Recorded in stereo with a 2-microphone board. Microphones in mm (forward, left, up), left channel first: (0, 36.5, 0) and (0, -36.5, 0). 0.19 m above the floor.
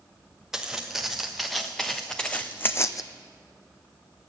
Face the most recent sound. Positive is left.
turn(degrees=55)  # may be behind; listen again after turning